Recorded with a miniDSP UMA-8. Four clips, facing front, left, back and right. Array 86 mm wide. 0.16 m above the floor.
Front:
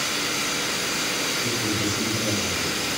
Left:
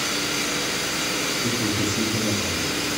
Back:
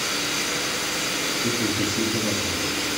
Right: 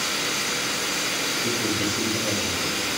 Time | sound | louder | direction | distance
1.4 | a man speaking | left 1 dB, back 3 dB | 150° left | 1.8 m